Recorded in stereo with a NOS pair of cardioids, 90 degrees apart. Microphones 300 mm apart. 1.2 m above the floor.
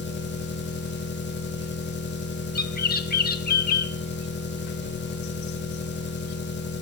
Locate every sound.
0.0 s an engine running: 35° left, 1.7 m
2.5 s a bird: 30° left, 1.4 m